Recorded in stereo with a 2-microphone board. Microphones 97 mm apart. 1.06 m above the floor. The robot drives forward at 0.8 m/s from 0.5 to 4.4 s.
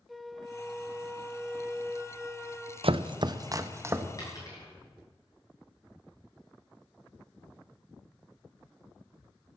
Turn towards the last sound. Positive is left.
turn(degrees=35)  # may be behind; listen again after turning